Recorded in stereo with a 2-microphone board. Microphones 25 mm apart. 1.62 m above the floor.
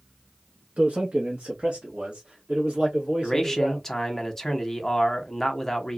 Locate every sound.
0.8 s a man speaking: 60° right (ahead or behind), 0.6 m; by 3.9 s 40° right (ahead or behind), 2 m
3.2 s a man speaking: 10° left (ahead or behind), 0.8 m